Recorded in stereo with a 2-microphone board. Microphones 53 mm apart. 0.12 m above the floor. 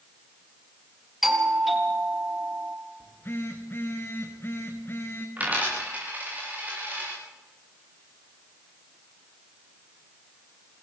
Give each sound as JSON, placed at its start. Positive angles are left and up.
{"t": 1.2, "sound": "a doorbell", "side_deg": -5, "distance_m": 4.0}
{"t": 3.0, "sound": "a phone buzzing", "side_deg": 40, "distance_m": 3.5}
{"t": 5.4, "sound": "a dropped coin", "side_deg": -30, "distance_m": 9.5}